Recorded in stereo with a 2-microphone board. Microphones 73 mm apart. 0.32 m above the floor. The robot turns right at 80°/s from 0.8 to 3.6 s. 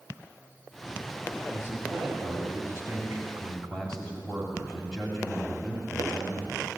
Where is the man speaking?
160° right, 2.5 m; by 6.7 s 10° left, 2.5 m.